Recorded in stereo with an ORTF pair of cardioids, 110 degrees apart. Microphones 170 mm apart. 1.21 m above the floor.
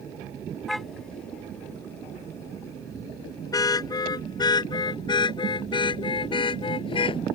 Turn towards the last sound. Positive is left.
turn(degrees=30)